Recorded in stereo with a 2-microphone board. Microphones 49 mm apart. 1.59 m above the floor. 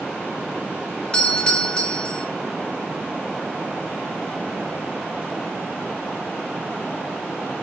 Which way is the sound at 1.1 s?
20° left (ahead or behind).